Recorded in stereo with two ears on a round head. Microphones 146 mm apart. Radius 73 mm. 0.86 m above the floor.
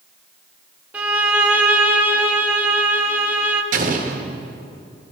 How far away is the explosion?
About 0.9 m.